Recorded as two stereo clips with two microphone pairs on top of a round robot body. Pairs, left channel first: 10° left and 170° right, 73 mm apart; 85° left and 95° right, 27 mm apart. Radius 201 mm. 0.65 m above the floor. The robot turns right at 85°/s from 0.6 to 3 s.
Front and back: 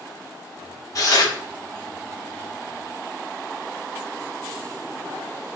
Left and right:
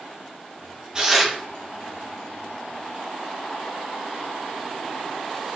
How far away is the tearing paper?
About 1.9 m.